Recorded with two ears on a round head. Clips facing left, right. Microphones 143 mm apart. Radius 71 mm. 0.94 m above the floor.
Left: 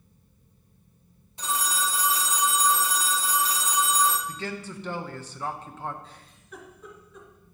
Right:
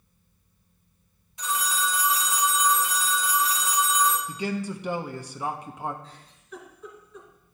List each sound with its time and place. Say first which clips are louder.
1.4 s a phone ringing: right 1 dB; 30° left (ahead or behind), 0.8 m
4.3 s a man speaking: right 5 dB; 10° right (ahead or behind), 0.5 m
6.0 s a giggle: right 2 dB; 5° left (ahead or behind), 2.5 m